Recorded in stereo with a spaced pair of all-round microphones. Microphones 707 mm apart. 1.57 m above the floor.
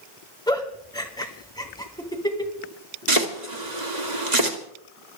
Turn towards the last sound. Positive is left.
turn(degrees=-75)  # may be behind; listen again after turning